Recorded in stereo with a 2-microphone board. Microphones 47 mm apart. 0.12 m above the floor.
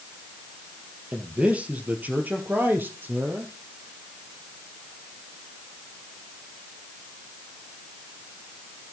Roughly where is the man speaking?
Right.